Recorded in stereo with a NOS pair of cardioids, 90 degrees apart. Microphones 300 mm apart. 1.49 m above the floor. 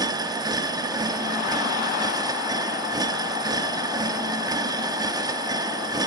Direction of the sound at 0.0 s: 15° right.